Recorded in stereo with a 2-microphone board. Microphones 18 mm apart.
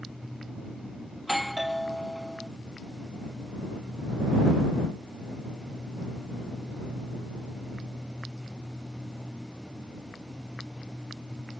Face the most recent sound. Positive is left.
turn(degrees=-5)  # may be behind; listen again after turning